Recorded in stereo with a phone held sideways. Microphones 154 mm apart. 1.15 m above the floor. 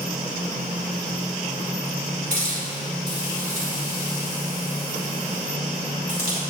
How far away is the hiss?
About 2.5 m.